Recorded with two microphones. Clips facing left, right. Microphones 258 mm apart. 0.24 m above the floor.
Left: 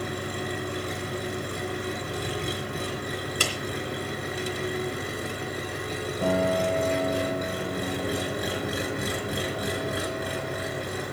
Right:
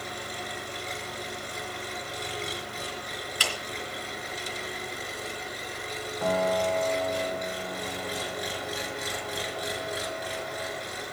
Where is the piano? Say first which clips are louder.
Left 2 dB; 35° left (ahead or behind), 4.5 m.